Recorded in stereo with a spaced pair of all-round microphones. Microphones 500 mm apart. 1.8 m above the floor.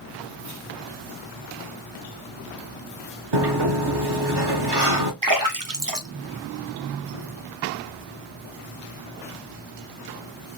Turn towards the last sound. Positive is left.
turn(degrees=-40)  # may be behind; listen again after turning